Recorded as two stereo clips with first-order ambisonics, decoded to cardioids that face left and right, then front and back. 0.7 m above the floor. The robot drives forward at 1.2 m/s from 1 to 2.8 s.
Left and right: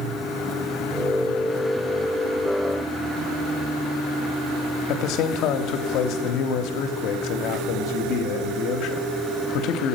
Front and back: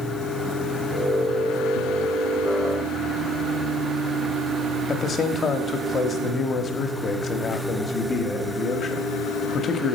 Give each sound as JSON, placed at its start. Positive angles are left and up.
{"t": 4.9, "sound": "a man speaking", "azimuth_deg": 65, "distance_m": 0.9}